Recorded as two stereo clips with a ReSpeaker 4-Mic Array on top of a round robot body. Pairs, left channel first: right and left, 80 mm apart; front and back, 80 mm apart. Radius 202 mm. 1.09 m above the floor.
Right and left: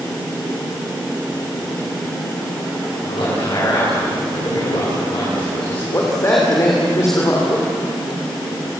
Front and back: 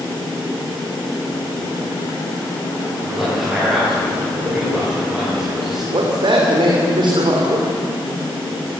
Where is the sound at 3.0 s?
95° right, 9.5 m.